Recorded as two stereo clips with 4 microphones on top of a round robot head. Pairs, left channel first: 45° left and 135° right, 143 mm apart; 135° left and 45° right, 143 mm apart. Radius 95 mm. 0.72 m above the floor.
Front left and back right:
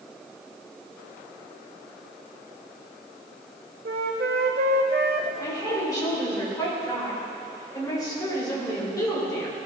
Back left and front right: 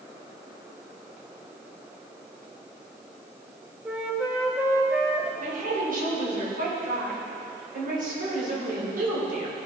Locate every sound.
3.9 s a flute: 125° right, 0.6 m
5.4 s a woman speaking: 25° right, 2.5 m